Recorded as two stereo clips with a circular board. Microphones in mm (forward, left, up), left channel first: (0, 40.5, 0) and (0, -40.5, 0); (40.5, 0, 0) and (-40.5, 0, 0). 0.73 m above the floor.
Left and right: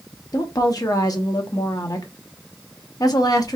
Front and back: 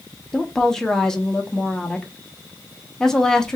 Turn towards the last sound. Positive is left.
turn(degrees=80)